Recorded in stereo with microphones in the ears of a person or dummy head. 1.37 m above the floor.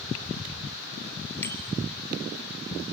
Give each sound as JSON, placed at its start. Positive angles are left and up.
{"t": 1.4, "sound": "a bicycle bell", "side_deg": 15, "distance_m": 3.5}